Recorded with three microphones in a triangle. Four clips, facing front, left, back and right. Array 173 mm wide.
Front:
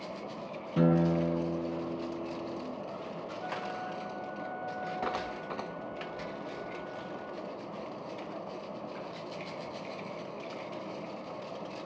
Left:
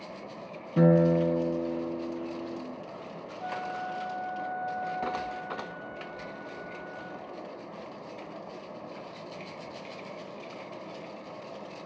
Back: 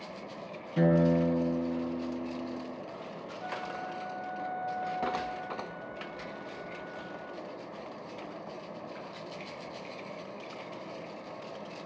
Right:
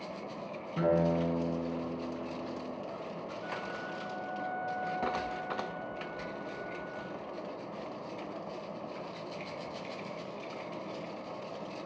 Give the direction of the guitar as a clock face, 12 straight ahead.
10 o'clock.